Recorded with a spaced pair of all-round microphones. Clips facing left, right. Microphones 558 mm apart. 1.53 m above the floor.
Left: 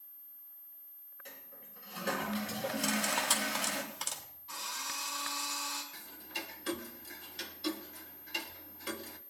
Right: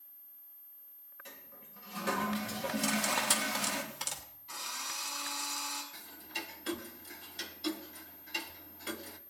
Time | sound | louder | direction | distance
1.2 | a toilet flushing | even | 30° right (ahead or behind) | 3.5 m
2.8 | cutlery clinking | right 1 dB | 45° right (ahead or behind) | 3 m
4.5 | a drill | left 1 dB | 5° right (ahead or behind) | 6 m
5.9 | ticking | even | centre (ahead or behind) | 1.0 m